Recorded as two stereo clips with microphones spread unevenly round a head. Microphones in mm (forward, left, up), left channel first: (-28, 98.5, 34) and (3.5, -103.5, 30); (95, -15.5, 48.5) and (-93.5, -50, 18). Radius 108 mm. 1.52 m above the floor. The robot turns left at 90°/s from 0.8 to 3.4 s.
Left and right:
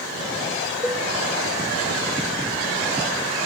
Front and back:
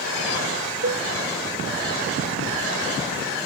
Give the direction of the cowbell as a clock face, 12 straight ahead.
6 o'clock.